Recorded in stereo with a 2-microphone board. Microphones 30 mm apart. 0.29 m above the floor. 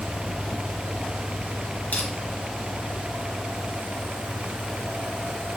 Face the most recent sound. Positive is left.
turn(degrees=60)  # may be behind; listen again after turning